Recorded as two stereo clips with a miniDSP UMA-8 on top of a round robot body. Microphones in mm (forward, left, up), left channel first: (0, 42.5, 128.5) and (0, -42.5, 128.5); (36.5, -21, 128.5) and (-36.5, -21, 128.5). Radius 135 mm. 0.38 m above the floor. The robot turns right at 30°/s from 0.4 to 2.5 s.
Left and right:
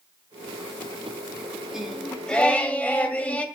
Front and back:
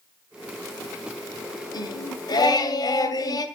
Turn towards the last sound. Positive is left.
turn(degrees=15)